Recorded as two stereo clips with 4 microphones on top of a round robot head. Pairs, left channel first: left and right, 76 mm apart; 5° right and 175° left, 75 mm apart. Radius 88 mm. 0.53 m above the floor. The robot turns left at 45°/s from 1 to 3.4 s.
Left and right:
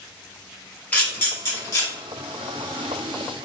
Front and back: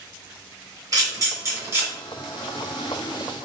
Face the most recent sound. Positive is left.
turn(degrees=50)